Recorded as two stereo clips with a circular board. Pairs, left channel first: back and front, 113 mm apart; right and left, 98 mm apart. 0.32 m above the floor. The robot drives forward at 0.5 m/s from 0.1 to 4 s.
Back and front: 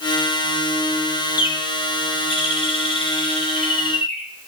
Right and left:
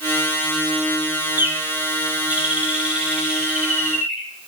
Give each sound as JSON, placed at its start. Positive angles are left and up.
{"t": 1.4, "sound": "a bird", "azimuth_deg": 150, "distance_m": 0.7}